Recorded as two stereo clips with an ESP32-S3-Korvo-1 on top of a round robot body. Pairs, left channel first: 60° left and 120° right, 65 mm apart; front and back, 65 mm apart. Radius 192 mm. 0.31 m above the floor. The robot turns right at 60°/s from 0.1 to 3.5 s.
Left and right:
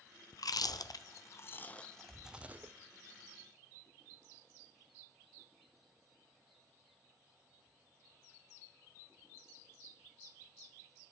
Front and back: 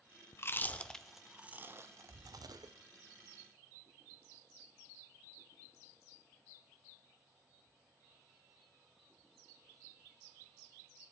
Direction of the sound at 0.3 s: 45° left.